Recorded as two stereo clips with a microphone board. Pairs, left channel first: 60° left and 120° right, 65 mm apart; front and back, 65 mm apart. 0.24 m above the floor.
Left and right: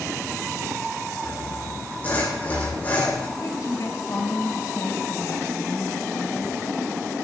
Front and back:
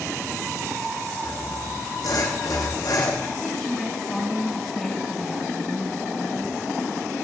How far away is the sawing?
About 5.5 m.